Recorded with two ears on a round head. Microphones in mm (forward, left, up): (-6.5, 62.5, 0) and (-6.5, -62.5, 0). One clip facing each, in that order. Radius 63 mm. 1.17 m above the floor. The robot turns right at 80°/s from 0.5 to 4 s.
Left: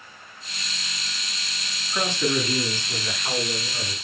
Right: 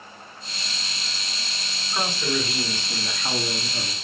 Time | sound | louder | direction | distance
1.9 | a man speaking | left 2 dB | 100° left | 7.5 m